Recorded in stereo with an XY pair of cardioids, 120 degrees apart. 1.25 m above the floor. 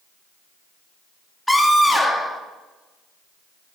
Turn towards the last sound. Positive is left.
turn(degrees=10)